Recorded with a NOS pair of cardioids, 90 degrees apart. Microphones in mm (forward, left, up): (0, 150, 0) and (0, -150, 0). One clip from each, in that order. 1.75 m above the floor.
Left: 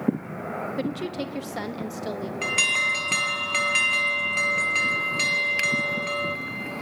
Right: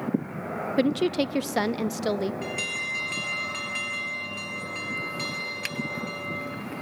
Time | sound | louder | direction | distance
0.8 | a woman speaking | right 6 dB | 35° right | 0.9 m
2.4 | an alarm | left 8 dB | 70° left | 2 m